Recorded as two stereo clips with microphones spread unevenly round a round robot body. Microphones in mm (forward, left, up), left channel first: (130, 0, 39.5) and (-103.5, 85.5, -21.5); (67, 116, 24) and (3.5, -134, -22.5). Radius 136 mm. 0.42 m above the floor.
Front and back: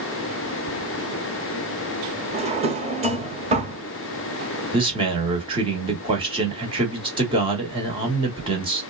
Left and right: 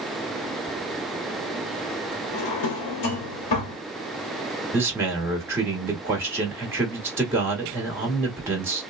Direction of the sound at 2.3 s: 100° left.